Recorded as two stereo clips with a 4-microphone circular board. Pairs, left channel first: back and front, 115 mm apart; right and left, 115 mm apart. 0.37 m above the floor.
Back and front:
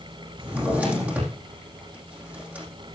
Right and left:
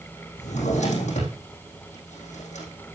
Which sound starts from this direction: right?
A drawer, at 0.4 s.